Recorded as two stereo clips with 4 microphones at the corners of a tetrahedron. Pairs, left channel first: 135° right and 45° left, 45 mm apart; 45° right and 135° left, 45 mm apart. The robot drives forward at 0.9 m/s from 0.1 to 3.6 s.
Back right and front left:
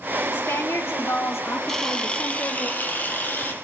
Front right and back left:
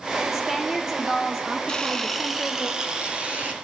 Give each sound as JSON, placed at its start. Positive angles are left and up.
{"t": 0.3, "sound": "a woman speaking", "azimuth_deg": -140, "distance_m": 3.5}
{"t": 1.7, "sound": "a camera shutter", "azimuth_deg": -75, "distance_m": 1.0}